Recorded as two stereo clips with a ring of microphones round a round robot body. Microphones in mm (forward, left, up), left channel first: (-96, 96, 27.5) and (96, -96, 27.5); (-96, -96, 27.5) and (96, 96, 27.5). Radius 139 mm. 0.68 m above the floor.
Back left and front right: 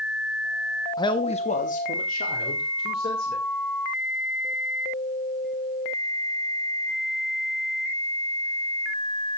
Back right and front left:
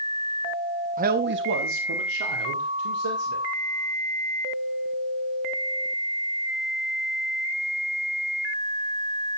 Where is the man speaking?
70° left, 0.8 m; by 3.5 s 80° left, 2.5 m.